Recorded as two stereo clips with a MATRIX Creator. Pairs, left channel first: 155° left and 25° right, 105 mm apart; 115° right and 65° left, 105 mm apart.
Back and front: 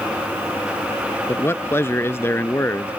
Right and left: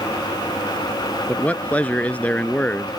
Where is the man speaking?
175° right.